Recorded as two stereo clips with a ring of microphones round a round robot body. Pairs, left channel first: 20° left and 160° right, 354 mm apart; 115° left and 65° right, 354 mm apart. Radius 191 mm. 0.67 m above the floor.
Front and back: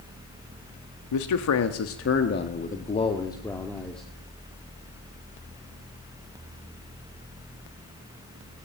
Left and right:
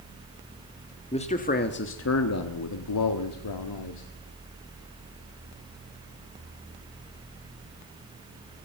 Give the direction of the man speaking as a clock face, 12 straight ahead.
11 o'clock.